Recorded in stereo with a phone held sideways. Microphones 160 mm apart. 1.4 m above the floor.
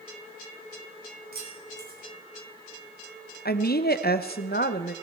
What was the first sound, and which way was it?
Keys jangling, 75° right (ahead or behind).